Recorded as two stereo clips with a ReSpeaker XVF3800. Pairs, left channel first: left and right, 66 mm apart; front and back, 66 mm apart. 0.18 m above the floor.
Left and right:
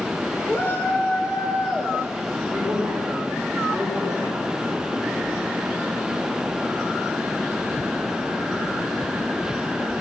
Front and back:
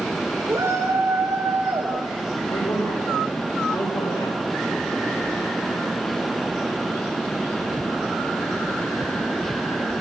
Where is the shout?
140° left, 3.5 m; by 2.4 s 100° left, 3 m.